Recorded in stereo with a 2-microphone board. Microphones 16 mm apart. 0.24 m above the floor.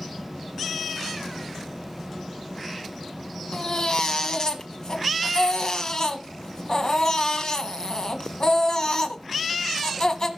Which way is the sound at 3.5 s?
45° left (ahead or behind).